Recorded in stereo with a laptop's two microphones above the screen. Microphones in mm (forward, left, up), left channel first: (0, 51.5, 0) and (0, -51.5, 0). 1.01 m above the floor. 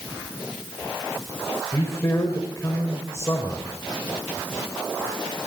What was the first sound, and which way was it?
A man speaking, 25° left (ahead or behind).